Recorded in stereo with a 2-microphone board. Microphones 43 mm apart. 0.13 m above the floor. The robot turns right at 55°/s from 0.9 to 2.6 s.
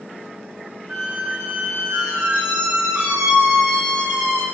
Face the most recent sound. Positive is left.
turn(degrees=-70)